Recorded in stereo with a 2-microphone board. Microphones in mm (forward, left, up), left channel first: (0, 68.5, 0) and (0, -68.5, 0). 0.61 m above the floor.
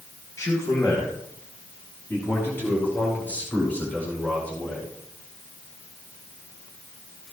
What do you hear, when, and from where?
0.4 s a man speaking: 25° left (ahead or behind), 3.5 m; by 4.9 s 10° left (ahead or behind), 7 m